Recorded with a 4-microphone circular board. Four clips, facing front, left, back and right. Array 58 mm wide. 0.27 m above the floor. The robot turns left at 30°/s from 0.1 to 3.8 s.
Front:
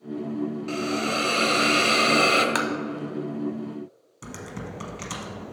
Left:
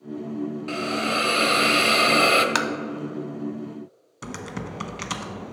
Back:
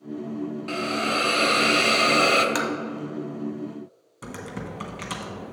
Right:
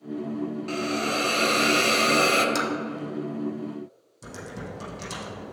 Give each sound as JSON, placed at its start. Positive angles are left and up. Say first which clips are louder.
{"t": 0.7, "sound": "a hiss", "louder": "left 2 dB, back 3 dB", "azimuth_deg": 135, "distance_m": 0.6}
{"t": 2.5, "sound": "tapping", "louder": "left 3 dB, front 1 dB", "azimuth_deg": 75, "distance_m": 0.6}
{"t": 4.2, "sound": "typing on a keyboard", "louder": "left 4 dB, back 2 dB", "azimuth_deg": 105, "distance_m": 0.7}